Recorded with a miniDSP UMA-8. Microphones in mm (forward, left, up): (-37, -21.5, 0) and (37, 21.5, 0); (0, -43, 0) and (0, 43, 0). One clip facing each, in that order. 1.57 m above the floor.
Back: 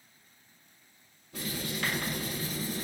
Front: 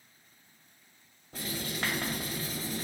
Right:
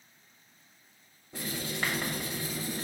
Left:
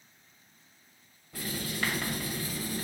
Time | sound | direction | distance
1.3 | writing | 25° right | 2 m